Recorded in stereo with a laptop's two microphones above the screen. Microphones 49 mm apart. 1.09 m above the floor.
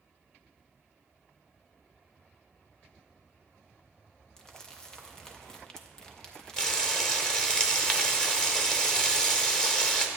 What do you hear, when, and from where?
4.4 s crumpling: 15° left (ahead or behind), 0.5 m
6.6 s frying: 15° left (ahead or behind), 0.9 m